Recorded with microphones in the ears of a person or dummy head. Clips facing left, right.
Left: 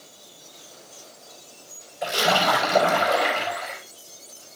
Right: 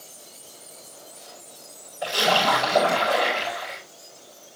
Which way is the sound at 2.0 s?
25° left (ahead or behind).